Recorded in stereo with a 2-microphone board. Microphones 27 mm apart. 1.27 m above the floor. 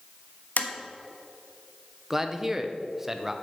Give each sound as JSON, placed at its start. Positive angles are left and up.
{"t": 0.6, "sound": "tapping", "side_deg": 80, "distance_m": 1.2}
{"t": 2.1, "sound": "a man speaking", "side_deg": -10, "distance_m": 1.0}